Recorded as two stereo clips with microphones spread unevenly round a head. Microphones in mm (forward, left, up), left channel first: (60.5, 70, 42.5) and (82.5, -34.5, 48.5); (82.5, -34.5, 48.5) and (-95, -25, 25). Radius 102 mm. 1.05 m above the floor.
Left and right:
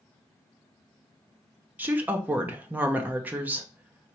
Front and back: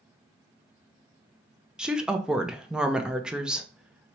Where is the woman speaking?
130° right, 0.5 m.